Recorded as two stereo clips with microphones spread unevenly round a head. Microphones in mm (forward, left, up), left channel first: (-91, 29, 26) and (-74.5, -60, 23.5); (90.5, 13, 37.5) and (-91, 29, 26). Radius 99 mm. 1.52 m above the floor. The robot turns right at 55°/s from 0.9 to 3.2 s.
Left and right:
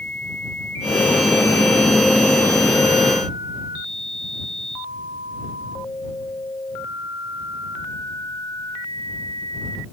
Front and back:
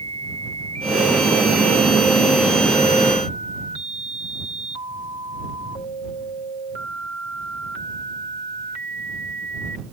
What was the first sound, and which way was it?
Only background noise.